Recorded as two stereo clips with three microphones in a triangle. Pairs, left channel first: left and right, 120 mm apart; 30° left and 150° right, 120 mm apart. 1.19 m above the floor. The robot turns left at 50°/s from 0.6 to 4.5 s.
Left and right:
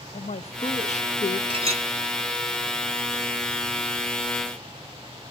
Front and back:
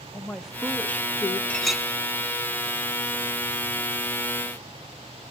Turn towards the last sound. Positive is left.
turn(degrees=160)